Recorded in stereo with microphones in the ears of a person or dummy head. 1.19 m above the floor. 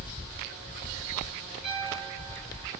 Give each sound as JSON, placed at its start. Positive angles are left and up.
{"t": 1.6, "sound": "a piano", "side_deg": -5, "distance_m": 2.5}